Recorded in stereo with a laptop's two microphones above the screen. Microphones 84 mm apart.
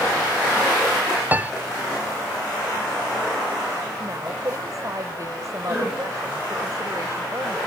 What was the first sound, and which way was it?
A piano, 25° right (ahead or behind).